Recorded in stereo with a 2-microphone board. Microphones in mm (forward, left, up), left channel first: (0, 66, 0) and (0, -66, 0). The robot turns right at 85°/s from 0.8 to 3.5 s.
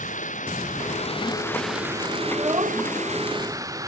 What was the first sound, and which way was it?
Running water, 105° left.